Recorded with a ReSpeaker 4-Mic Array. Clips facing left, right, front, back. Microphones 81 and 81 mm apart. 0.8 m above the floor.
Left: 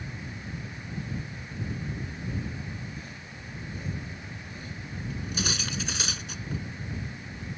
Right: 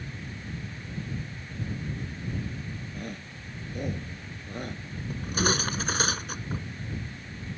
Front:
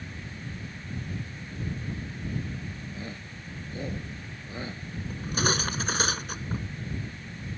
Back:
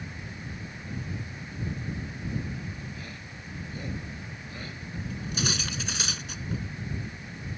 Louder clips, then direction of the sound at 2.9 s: Right 4 dB, front 2 dB; 65° right.